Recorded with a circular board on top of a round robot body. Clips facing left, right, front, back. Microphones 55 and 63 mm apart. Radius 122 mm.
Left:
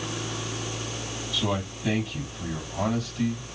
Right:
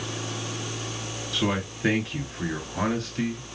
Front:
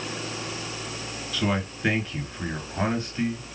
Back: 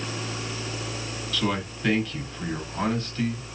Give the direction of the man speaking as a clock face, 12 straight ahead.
2 o'clock.